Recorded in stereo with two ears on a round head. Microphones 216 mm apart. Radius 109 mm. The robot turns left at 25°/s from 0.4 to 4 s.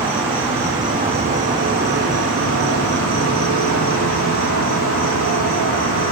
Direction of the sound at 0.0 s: 5° right.